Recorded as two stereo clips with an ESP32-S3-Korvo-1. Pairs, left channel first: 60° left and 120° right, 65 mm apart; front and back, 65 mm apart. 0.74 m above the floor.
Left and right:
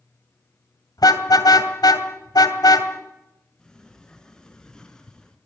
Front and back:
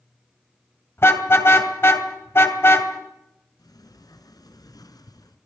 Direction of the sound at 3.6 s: 20° right.